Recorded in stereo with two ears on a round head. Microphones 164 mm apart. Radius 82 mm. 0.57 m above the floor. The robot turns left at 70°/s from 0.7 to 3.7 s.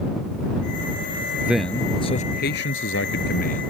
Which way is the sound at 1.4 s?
165° right.